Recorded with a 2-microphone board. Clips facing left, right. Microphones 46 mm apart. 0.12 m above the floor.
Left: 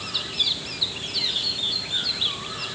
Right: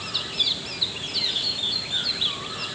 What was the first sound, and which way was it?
Only background noise.